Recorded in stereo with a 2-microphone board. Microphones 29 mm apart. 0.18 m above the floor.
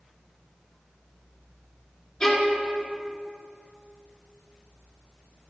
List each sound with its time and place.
2.2 s a violin: 35° left (ahead or behind), 2.5 m